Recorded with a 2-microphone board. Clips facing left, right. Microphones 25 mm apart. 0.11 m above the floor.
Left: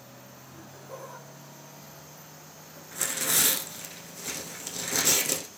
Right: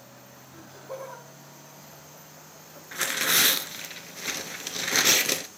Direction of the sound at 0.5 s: 50° right (ahead or behind).